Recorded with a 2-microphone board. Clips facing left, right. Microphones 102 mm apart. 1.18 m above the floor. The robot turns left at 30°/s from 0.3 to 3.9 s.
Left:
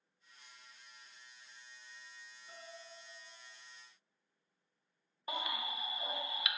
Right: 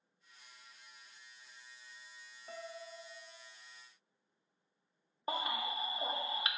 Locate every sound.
2.5 s a piano: 60° right, 0.5 m; by 3.5 s 90° right, 0.5 m
5.3 s a baby crying: 35° right (ahead or behind), 0.5 m